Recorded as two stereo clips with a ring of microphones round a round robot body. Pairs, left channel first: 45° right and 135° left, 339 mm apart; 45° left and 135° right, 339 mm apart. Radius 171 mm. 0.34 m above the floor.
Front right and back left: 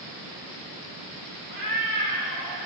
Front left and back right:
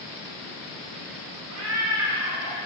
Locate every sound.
1.5 s a cat meowing: 175° left, 8 m; by 2.6 s 170° left, 8 m